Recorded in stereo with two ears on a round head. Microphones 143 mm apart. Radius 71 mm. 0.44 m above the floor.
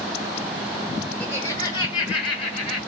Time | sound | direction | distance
1.2 | laughter | 10° left (ahead or behind) | 0.8 m